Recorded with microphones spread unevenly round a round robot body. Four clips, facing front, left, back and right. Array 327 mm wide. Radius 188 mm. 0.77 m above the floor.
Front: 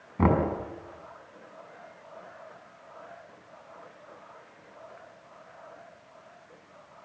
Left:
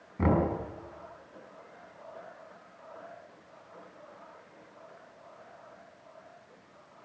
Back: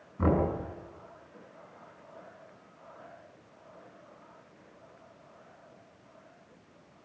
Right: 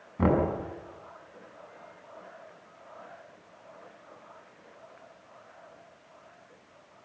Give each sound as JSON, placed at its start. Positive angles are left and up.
{"t": 0.2, "sound": "knocking", "azimuth_deg": -10, "distance_m": 6.0}